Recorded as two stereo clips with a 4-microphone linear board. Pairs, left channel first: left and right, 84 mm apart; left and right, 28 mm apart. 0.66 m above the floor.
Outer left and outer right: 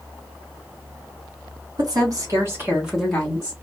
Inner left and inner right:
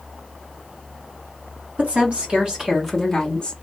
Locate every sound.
1.8 s a woman speaking: 55° right (ahead or behind), 1.6 m; by 3.5 s 30° left (ahead or behind), 1.1 m